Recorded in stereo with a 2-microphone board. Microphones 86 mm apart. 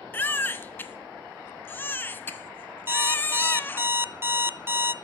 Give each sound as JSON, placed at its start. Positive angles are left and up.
{"t": 0.1, "sound": "a baby crying", "side_deg": 25, "distance_m": 0.7}
{"t": 2.9, "sound": "an alarm clock", "side_deg": -25, "distance_m": 0.5}